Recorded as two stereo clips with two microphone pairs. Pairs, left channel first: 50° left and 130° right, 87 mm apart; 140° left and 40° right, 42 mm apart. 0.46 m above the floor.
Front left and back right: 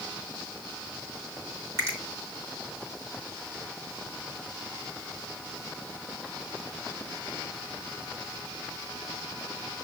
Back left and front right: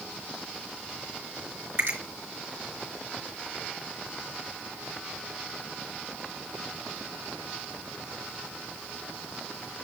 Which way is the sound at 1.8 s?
70° right.